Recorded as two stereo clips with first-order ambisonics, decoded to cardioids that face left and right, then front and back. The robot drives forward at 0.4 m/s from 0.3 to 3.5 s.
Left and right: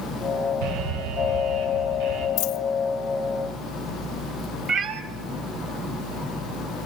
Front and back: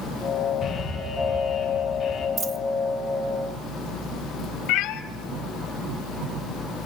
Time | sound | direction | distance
0.6 | an alarm | 80° right | 3 m
2.4 | a dropped coin | 115° left | 0.7 m
4.7 | a cat meowing | 30° right | 0.7 m